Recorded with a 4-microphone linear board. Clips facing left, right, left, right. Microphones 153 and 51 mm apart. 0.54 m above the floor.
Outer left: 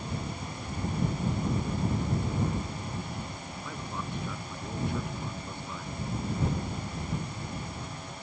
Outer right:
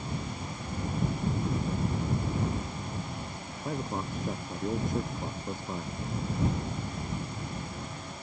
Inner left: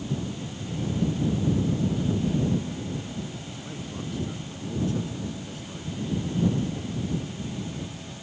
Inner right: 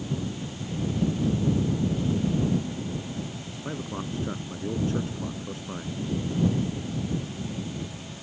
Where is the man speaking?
40° right (ahead or behind).